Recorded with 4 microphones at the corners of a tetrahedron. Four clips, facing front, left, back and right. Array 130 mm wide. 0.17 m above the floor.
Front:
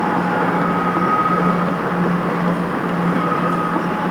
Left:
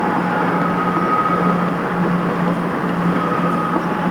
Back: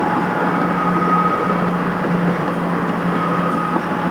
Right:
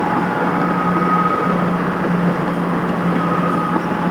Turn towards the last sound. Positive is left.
No sound to turn to.